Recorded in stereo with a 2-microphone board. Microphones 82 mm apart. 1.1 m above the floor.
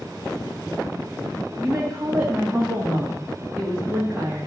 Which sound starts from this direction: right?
A woman speaking, at 1.6 s.